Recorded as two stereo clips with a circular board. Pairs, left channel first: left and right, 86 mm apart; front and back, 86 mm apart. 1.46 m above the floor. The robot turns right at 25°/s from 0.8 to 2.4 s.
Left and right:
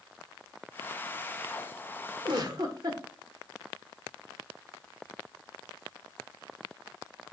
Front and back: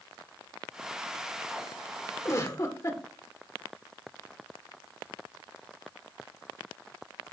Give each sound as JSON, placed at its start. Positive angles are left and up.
{"t": 2.2, "sound": "a giggle", "azimuth_deg": -55, "distance_m": 1.5}